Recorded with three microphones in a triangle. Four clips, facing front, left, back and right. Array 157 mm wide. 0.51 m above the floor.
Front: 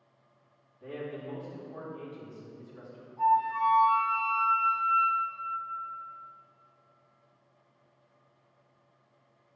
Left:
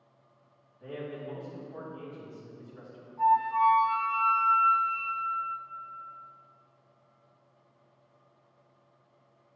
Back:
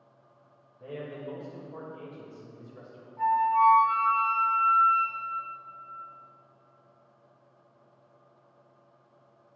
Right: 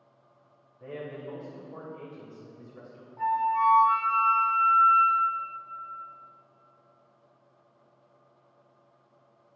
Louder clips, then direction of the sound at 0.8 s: Even, even; 140° right.